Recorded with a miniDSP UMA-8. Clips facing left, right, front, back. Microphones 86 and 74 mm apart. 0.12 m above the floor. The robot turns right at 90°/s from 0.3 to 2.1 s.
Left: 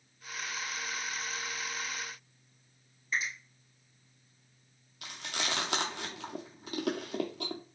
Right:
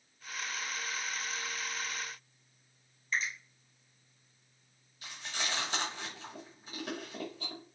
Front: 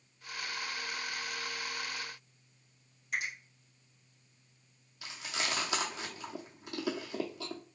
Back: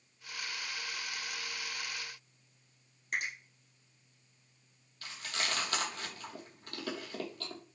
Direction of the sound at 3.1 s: 165° left.